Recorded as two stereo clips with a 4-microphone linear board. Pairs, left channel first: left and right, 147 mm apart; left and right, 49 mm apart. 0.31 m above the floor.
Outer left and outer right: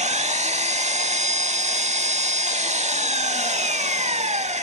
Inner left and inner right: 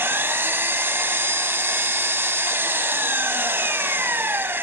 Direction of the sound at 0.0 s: 50° right (ahead or behind).